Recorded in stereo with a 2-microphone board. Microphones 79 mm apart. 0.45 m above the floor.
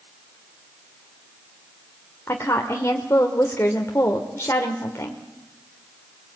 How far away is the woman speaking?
About 1.7 m.